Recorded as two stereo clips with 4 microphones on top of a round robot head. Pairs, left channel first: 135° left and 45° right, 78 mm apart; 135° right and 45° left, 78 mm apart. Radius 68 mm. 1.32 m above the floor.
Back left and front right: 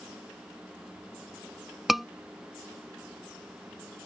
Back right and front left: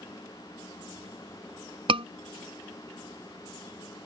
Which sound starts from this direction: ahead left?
A scream, at 1.9 s.